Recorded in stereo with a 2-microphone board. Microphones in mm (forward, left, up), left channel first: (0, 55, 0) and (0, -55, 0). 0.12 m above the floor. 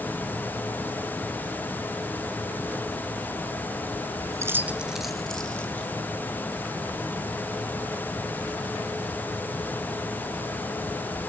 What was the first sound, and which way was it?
Keys jangling, 25° right (ahead or behind).